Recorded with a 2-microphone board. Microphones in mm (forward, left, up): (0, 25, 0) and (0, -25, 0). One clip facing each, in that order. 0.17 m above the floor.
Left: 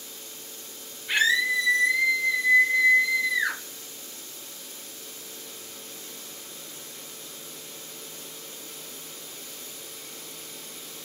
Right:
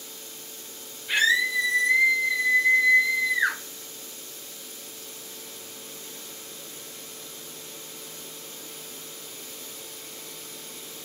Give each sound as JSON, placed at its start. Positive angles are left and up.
{"t": 1.1, "sound": "a scream", "side_deg": 15, "distance_m": 1.4}